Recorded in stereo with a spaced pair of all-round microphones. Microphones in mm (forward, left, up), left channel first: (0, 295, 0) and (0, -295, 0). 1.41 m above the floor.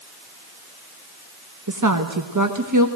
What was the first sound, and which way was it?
A woman speaking, 30° right (ahead or behind).